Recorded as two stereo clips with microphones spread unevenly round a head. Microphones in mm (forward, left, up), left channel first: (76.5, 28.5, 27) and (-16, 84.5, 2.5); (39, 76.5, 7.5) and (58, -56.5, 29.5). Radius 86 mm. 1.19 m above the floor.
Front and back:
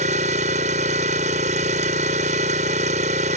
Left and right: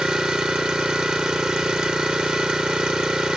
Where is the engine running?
165° right.